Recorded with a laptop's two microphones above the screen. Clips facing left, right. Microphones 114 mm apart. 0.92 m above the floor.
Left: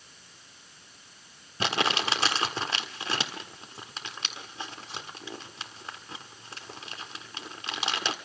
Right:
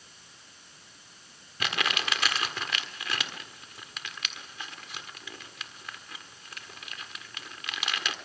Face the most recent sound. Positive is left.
turn(degrees=30)  # may be behind; listen again after turning